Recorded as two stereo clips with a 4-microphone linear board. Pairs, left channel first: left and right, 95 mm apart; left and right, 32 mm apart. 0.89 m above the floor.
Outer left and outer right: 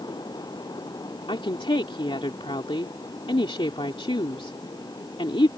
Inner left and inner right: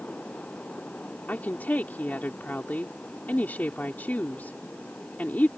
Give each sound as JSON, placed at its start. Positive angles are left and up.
{"t": 1.3, "sound": "a woman speaking", "side_deg": 70}